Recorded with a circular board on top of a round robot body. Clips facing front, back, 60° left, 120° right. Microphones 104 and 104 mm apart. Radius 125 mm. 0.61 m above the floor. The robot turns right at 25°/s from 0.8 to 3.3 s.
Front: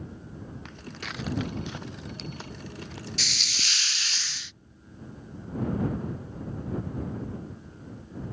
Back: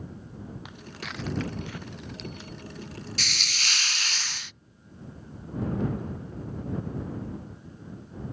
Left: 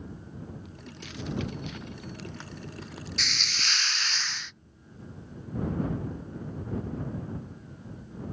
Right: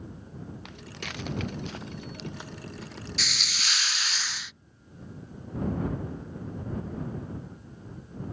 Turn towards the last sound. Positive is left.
turn(degrees=155)